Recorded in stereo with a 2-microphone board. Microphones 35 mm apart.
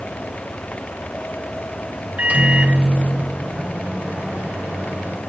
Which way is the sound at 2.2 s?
40° right (ahead or behind).